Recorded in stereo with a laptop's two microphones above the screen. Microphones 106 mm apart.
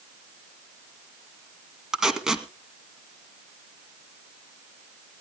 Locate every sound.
1.9 s tape being pulled: 5° right (ahead or behind), 1.8 m